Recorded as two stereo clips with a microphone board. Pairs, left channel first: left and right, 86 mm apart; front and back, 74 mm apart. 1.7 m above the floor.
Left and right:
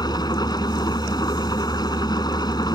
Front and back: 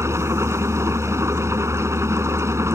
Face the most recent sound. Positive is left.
turn(degrees=130)